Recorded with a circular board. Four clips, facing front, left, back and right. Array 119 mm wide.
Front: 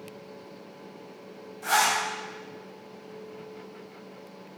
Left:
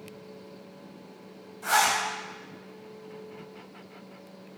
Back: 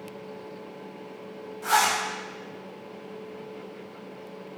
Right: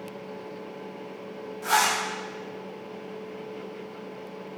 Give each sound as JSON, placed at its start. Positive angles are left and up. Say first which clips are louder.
{"t": 1.6, "sound": "a zipper", "louder": "right 1 dB, back 1 dB", "azimuth_deg": -120, "distance_m": 1.5}